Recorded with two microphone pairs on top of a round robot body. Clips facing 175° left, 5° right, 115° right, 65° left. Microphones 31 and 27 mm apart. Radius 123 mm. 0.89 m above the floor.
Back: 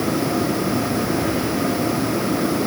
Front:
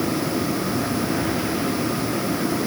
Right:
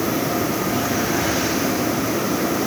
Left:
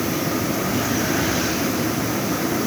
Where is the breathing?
I don't hear breathing.